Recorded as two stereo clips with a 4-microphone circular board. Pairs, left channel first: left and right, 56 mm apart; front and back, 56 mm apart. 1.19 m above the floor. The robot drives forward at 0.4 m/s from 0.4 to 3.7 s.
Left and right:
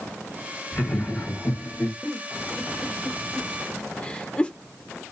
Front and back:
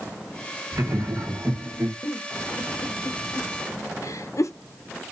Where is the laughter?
145° left, 2.0 m; by 1.9 s 150° left, 2.5 m.